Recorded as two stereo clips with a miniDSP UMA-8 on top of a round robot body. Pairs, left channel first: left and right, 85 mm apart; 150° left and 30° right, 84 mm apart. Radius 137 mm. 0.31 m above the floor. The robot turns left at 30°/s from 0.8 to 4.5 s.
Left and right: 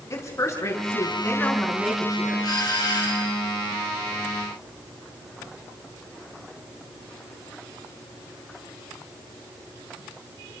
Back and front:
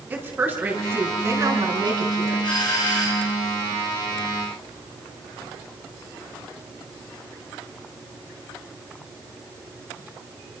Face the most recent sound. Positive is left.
turn(degrees=70)